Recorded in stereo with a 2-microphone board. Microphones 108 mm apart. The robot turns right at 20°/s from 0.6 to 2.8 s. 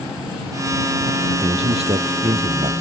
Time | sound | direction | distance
1.4 | a man speaking | 70° right (ahead or behind) | ?